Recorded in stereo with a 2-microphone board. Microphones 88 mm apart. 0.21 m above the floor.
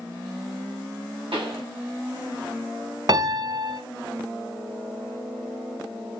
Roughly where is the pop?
Right.